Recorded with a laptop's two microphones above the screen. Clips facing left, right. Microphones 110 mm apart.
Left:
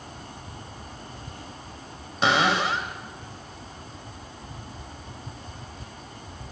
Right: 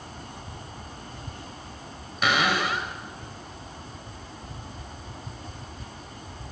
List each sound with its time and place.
2.2 s a cupboard door: 30° left (ahead or behind), 3 m